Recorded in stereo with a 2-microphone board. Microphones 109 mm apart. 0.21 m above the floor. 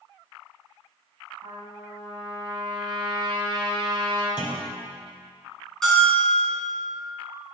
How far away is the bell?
About 2.5 m.